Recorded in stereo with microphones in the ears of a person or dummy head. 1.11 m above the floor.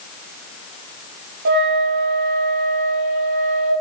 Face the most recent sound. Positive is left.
turn(degrees=-60)  # may be behind; listen again after turning